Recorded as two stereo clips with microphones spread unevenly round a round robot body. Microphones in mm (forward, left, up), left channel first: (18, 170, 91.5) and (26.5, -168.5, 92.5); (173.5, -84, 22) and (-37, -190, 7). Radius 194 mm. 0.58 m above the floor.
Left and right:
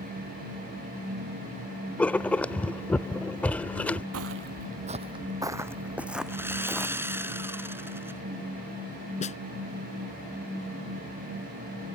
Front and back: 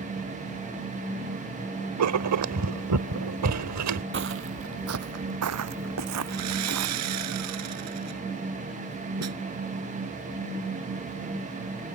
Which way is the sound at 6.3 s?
170° right.